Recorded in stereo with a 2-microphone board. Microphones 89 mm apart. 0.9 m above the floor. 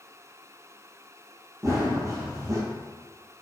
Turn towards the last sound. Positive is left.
turn(degrees=-35)  # may be behind; listen again after turning